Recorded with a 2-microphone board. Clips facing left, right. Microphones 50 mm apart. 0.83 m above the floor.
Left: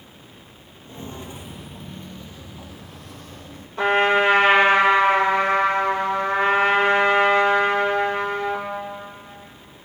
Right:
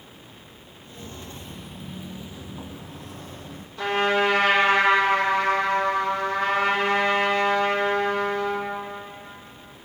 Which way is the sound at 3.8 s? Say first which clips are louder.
Left 4 dB; 40° left (ahead or behind).